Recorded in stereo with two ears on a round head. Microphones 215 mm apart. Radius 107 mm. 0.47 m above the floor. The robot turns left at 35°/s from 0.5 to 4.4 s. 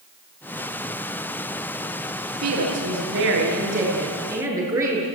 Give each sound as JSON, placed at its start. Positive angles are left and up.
{"t": 2.4, "sound": "a woman speaking", "azimuth_deg": -95, "distance_m": 8.0}